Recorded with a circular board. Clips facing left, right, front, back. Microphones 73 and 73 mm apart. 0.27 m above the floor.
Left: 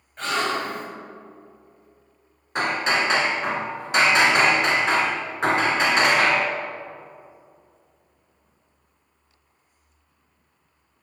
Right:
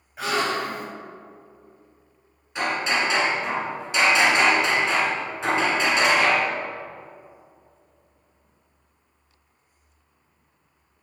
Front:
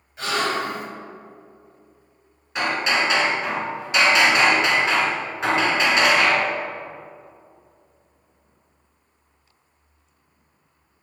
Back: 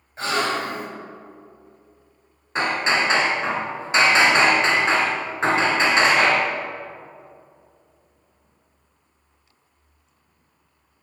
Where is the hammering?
125° left, 1.1 m.